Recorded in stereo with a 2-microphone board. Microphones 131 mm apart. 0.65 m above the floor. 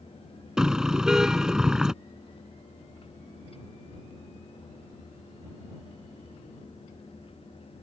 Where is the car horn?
5° right (ahead or behind).